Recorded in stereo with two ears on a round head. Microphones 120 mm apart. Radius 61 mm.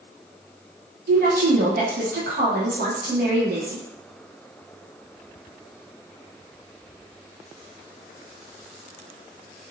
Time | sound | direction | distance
1.1 | a woman speaking | 65° right (ahead or behind) | 1.2 m